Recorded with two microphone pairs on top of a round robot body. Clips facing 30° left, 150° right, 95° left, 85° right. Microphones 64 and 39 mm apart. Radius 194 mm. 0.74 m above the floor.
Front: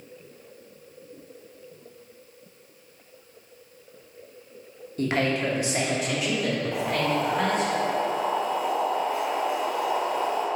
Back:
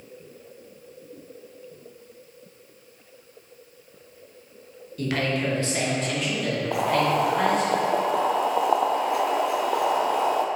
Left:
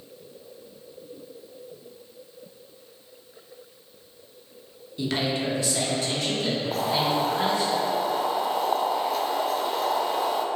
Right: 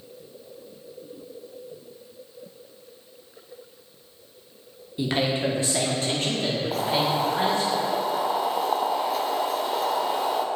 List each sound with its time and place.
5.0 s a man speaking: 25° right, 1.3 m; by 7.7 s 60° right, 3.5 m
6.7 s boiling: 170° right, 0.6 m